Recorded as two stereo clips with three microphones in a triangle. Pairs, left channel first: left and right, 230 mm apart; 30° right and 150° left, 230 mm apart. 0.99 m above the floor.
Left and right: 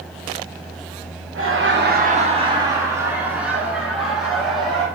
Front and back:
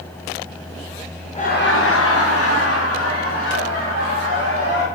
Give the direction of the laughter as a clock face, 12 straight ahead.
3 o'clock.